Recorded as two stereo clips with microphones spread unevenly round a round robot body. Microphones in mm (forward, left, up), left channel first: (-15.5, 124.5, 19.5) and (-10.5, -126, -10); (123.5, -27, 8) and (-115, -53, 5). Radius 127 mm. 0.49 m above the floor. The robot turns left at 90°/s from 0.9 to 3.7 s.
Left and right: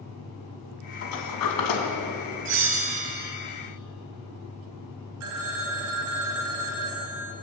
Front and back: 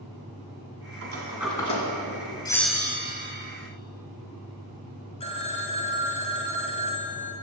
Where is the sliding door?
140° left, 2.5 m; by 2.4 s 15° left, 2.5 m.